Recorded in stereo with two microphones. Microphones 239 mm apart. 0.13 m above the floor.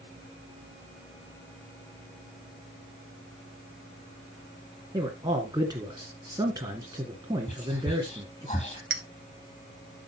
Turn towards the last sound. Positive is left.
turn(degrees=-55)  # may be behind; listen again after turning